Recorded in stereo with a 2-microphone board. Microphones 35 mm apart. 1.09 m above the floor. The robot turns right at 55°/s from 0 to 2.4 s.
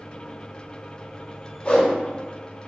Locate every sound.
1.6 s a whoosh: 35° left (ahead or behind), 0.8 m; by 1.9 s 20° left (ahead or behind), 0.8 m